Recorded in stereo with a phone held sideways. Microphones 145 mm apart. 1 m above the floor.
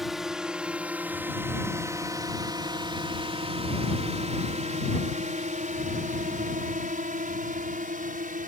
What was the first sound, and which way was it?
A drone, centre (ahead or behind).